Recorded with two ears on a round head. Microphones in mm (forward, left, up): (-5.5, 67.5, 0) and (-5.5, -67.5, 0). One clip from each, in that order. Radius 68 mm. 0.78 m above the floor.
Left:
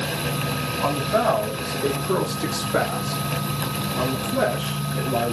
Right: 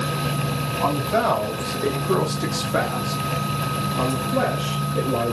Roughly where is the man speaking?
Centre.